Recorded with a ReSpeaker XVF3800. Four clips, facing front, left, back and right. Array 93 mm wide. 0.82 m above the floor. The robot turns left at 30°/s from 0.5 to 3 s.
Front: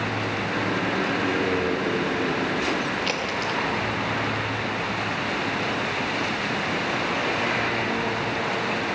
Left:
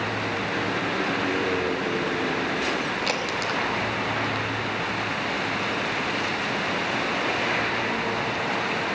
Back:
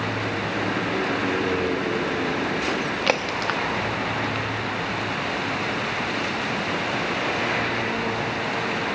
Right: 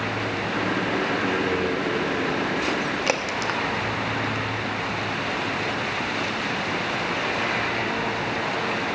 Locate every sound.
3.1 s a crack: 155° right, 1.0 m